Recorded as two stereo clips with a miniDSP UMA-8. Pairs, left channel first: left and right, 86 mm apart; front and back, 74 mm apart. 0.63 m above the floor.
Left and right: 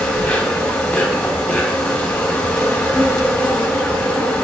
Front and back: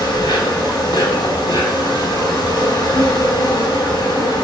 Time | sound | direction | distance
0.0 | an insect | 10° left | 5 m